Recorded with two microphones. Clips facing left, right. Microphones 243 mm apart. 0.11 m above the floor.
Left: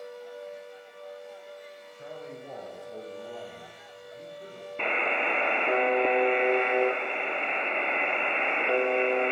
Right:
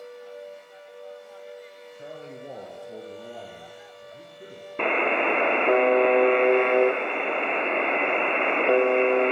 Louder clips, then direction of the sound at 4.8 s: Right 7 dB; 65° right (ahead or behind).